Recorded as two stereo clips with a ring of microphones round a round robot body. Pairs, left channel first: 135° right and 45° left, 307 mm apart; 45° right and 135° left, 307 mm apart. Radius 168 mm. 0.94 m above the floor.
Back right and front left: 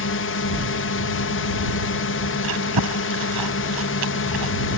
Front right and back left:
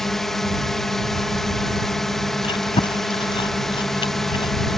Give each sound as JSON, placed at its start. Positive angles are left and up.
{"t": 0.0, "sound": "a drone", "azimuth_deg": -135}
{"t": 2.4, "sound": "chewing", "azimuth_deg": 30}